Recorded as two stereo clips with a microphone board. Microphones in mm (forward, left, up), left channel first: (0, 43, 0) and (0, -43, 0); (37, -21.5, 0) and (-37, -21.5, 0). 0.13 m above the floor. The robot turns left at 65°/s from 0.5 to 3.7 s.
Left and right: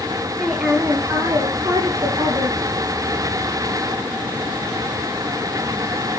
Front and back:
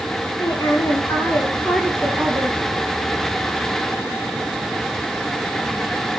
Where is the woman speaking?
Straight ahead, 2.5 m; by 2.6 s 135° right, 2.5 m.